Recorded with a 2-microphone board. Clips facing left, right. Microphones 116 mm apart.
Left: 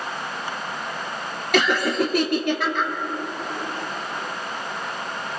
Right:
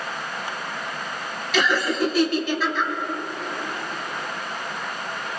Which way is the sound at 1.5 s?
60° left (ahead or behind).